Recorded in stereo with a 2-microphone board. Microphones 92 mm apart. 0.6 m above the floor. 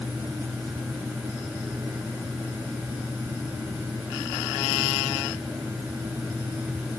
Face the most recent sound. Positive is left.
No sound to turn to.